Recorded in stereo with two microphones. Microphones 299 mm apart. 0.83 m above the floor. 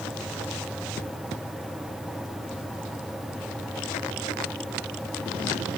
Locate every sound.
Only background noise.